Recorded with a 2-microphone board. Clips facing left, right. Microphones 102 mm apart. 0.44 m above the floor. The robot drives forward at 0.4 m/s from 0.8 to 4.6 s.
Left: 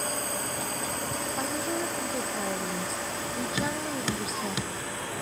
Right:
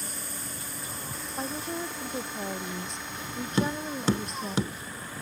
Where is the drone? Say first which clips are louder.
Left 9 dB; 65° left (ahead or behind); by 5.2 s 75° left (ahead or behind).